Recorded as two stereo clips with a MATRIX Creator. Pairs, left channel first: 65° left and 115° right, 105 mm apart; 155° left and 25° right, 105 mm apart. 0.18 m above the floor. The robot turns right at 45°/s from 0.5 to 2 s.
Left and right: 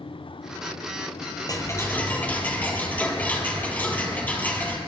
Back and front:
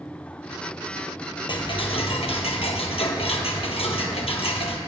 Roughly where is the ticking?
Behind left.